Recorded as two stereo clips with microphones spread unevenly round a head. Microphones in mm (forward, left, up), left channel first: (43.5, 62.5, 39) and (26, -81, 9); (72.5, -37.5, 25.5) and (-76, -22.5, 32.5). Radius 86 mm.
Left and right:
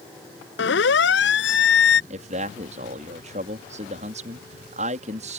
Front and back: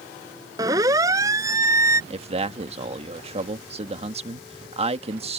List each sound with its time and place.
0.6 s a siren: 105° left; by 2.0 s 100° left
2.1 s a man speaking: 140° right